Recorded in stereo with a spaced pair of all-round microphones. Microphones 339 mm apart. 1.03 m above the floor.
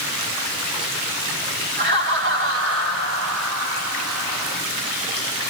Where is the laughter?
30° right (ahead or behind), 3 m; by 4.6 s 60° right (ahead or behind), 3 m.